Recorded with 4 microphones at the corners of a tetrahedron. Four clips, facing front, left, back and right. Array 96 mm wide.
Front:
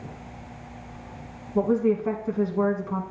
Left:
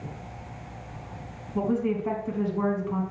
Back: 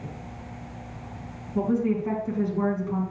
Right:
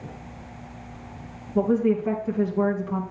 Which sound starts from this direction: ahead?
A woman speaking, at 1.6 s.